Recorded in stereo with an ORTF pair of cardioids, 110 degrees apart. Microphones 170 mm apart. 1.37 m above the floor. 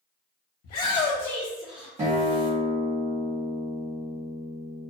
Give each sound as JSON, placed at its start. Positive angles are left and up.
{"t": 0.6, "sound": "a shout", "azimuth_deg": 70, "distance_m": 0.7}
{"t": 2.0, "sound": "a guitar", "azimuth_deg": -40, "distance_m": 1.1}